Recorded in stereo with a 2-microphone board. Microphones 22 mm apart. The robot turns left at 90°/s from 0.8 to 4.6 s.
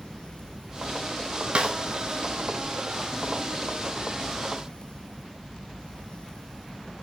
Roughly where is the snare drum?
Right.